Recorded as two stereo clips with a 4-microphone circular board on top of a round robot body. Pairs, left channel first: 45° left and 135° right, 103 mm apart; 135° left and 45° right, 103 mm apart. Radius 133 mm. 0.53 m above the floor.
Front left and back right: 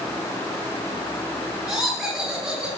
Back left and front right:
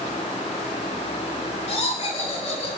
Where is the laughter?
150° left, 7.5 m; by 2.7 s 145° left, 7.5 m.